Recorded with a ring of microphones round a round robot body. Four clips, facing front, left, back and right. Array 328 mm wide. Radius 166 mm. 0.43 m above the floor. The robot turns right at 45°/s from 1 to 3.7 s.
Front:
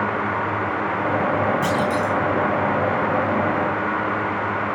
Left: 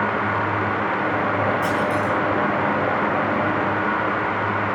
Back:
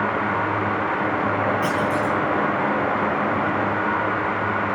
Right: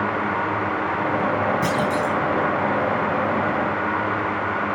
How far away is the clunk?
About 3.5 m.